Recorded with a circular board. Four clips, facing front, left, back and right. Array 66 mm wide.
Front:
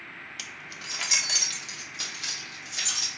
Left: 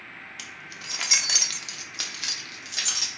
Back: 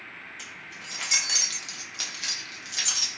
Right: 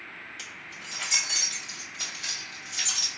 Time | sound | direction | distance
0.4 | keys jangling | 15° left | 0.6 m